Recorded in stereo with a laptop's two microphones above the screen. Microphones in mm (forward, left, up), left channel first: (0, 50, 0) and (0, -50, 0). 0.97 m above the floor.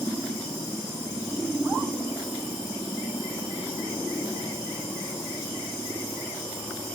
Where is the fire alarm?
I don't hear a fire alarm.